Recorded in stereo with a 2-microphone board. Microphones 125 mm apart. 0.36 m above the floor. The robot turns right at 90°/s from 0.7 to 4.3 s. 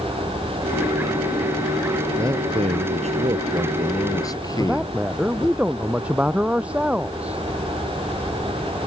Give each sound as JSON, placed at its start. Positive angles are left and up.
{"t": 2.2, "sound": "a man speaking", "azimuth_deg": -160}
{"t": 4.6, "sound": "a man speaking", "side_deg": -10}